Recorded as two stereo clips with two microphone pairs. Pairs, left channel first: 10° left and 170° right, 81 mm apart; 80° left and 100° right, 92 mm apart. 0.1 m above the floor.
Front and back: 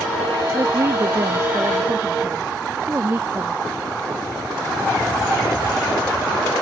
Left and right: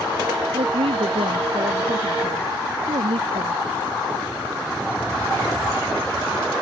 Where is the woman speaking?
105° right.